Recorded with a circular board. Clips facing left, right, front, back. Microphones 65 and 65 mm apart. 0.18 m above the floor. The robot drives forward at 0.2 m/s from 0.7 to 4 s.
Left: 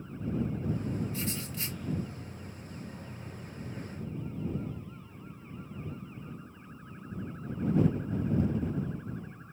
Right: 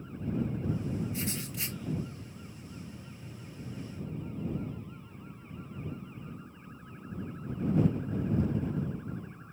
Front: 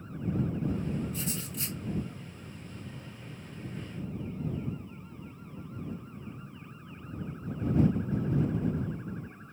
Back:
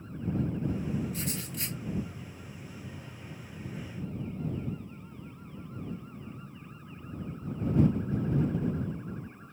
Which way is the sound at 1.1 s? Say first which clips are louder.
Even, even; 155° right.